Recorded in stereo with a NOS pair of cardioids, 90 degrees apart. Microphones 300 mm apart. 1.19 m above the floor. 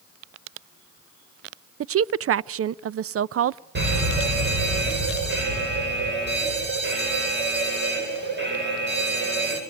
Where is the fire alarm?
35° right, 9 m.